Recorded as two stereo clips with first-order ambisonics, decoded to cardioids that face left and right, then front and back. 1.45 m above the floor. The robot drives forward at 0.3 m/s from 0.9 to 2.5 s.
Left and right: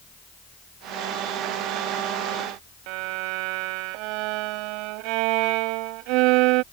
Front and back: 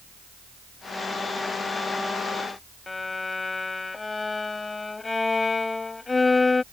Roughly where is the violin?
Right.